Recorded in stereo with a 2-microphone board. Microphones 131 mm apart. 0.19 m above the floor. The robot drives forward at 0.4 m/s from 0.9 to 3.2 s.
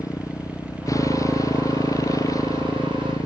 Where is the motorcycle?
25° left (ahead or behind).